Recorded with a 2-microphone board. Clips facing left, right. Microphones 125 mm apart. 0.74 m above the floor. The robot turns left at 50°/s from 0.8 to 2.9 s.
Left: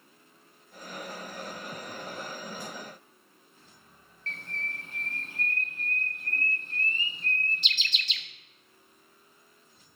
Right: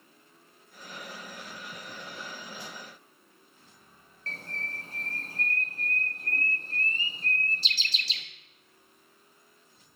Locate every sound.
4.3 s a bird: 35° right (ahead or behind), 0.8 m